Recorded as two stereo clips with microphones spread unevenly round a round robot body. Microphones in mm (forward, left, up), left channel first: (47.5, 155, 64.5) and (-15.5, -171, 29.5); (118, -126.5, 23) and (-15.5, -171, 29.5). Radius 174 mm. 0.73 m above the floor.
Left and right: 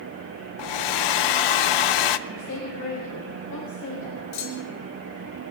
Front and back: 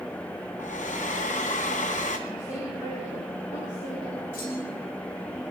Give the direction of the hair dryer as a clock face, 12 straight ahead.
9 o'clock.